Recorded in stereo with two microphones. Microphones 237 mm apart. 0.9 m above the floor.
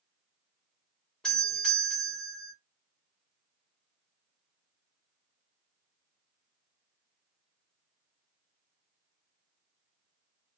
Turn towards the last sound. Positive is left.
turn(degrees=5)  # may be behind; listen again after turning